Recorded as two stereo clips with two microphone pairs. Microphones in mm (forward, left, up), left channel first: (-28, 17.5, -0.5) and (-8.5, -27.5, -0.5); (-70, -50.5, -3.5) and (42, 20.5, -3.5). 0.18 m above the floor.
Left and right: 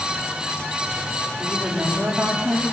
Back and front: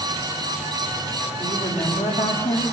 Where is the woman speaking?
130° right, 6 m.